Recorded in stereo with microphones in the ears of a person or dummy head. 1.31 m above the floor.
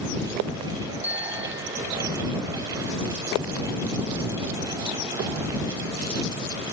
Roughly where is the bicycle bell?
Centre.